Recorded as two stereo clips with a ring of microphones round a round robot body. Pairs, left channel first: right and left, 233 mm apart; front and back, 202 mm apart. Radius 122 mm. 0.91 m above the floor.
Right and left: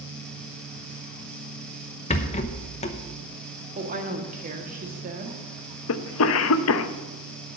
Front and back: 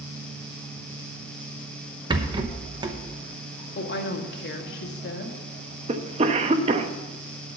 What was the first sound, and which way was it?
A rattle, 125° right.